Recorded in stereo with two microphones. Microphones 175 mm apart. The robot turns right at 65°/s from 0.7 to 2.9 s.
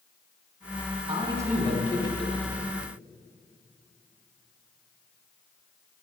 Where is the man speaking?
40° right, 3.5 m; by 2.4 s 45° left, 3.5 m.